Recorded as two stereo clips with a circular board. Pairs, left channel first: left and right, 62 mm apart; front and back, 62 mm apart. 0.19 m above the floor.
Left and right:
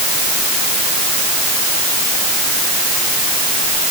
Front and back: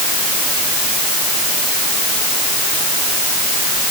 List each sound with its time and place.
Only background noise.